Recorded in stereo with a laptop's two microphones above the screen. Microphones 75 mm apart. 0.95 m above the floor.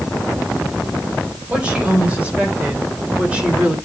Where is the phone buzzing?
No phone buzzing in this recording.